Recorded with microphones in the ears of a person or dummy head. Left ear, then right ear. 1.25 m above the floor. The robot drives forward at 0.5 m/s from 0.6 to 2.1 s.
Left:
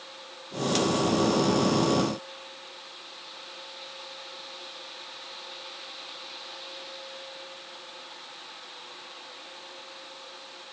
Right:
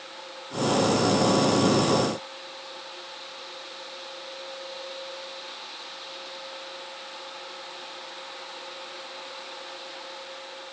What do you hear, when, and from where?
Only background noise.